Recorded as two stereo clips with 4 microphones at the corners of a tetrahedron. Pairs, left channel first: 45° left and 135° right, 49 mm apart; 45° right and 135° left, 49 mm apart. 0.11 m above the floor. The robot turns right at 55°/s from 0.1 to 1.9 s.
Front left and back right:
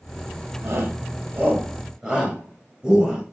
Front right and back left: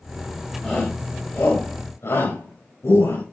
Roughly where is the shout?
Behind right.